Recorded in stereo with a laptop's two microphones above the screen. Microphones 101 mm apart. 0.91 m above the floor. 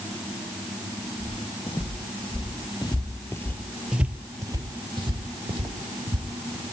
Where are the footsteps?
70° left (ahead or behind), 2.5 m; by 6.6 s 70° right (ahead or behind), 2.5 m.